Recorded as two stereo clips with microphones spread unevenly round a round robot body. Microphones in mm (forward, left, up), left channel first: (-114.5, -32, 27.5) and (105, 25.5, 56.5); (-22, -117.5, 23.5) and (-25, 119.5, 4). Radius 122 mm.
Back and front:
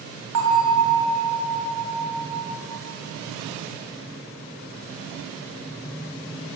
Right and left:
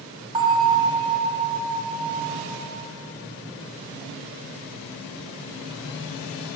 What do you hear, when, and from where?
0.3 s a bell: 20° left, 1.7 m